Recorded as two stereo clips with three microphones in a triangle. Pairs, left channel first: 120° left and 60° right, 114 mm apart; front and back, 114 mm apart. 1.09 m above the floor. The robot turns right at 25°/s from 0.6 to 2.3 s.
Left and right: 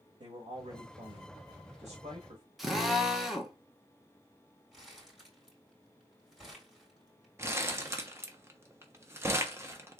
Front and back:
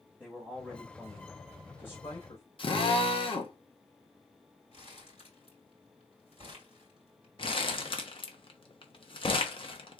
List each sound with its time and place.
0.2 s a man speaking: 75° right, 1.5 m; by 2.4 s 30° right, 1.5 m
2.6 s a drill: 30° left, 1.1 m
4.7 s crumpling: 25° left, 3.5 m
7.4 s crumpling: straight ahead, 1.0 m